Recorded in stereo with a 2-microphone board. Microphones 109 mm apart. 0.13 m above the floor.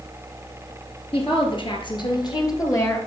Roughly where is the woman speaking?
Left.